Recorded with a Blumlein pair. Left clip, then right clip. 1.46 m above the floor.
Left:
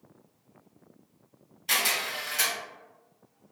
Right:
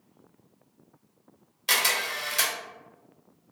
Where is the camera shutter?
40° right, 1.1 m.